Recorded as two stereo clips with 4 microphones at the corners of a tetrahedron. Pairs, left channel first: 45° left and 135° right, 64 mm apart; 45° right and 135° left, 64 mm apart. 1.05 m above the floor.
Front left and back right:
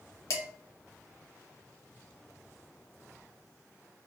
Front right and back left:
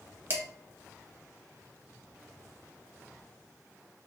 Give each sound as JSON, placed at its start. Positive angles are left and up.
{"t": 0.3, "sound": "dishes clattering", "azimuth_deg": 85, "distance_m": 0.9}